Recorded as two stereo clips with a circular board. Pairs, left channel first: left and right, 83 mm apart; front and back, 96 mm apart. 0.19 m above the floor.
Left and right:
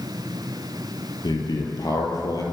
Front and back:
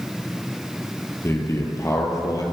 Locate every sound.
1.2 s a man speaking: 60° left, 5.5 m; by 2.4 s 50° left, 5.5 m